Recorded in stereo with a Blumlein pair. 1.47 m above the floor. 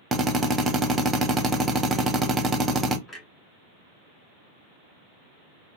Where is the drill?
15° right, 0.7 m.